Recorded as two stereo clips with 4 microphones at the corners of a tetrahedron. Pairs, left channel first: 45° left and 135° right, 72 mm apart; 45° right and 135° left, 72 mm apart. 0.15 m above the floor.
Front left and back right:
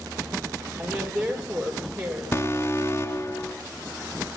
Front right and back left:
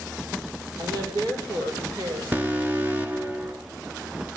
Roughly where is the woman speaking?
Behind left.